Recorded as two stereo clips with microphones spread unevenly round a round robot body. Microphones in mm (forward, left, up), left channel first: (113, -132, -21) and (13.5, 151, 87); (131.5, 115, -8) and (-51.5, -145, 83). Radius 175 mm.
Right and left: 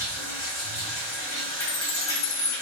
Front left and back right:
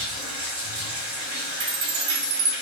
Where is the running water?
175° right, 2.5 m.